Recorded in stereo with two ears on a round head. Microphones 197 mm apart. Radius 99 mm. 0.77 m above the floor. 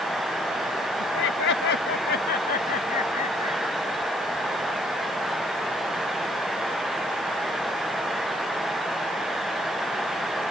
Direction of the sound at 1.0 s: 65° left (ahead or behind).